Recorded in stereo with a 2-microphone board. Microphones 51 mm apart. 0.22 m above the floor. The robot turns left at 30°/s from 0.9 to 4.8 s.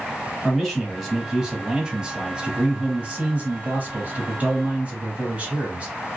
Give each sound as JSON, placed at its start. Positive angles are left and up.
{"t": 0.4, "sound": "a man speaking", "azimuth_deg": 0, "distance_m": 1.2}